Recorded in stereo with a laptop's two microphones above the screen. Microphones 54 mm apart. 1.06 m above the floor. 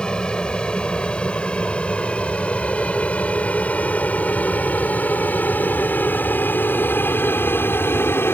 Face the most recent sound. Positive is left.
turn(degrees=50)  # may be behind; listen again after turning